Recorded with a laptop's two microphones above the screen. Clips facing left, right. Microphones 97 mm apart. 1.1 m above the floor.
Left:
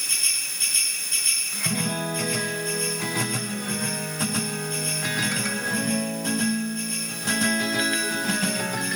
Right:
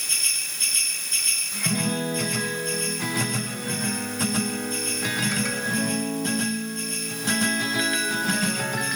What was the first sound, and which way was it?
Only background noise.